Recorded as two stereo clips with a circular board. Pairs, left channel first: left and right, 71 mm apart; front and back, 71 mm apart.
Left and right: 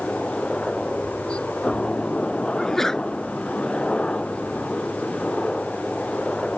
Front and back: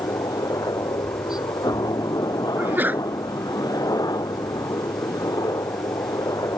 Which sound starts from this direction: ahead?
A helicopter, at 0.0 s.